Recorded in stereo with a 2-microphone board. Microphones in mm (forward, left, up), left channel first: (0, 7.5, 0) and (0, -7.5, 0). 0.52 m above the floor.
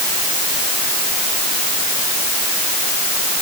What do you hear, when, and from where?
Only background noise.